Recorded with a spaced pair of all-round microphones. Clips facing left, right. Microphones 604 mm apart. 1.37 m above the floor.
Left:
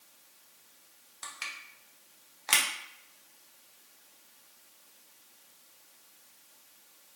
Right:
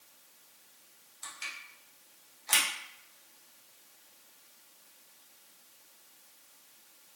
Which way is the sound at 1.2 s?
80° left.